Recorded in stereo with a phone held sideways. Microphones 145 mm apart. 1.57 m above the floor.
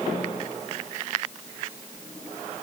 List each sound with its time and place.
Only background noise.